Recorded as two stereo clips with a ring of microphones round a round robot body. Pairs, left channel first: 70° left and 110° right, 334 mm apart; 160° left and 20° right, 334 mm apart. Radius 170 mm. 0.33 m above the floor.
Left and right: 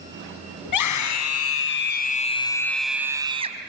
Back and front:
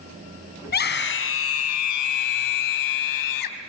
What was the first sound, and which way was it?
A scream, 95° left.